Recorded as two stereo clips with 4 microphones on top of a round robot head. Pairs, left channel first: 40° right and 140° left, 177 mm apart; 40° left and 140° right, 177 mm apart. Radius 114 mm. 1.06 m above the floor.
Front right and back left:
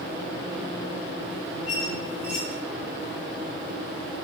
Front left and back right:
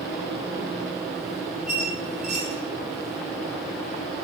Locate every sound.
1.7 s a squeak: 140° right, 0.6 m